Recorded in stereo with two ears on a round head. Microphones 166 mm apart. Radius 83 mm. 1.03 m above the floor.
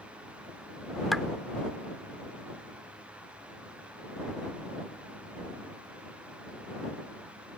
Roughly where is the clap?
Centre.